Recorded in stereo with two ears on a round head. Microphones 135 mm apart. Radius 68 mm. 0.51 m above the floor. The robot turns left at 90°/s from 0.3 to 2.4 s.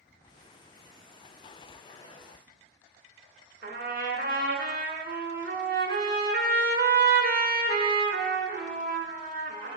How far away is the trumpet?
About 1.0 m.